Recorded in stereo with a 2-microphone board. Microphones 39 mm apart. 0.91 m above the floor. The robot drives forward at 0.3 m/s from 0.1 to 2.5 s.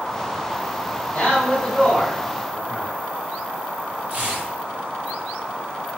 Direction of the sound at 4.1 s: 45° right (ahead or behind).